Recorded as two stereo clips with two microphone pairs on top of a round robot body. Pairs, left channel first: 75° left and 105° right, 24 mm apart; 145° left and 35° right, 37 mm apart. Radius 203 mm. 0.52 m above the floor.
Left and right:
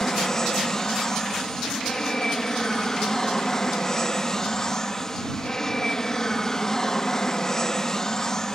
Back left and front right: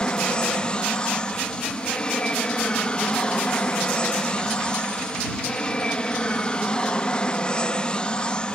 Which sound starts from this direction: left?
An aircraft, at 0.0 s.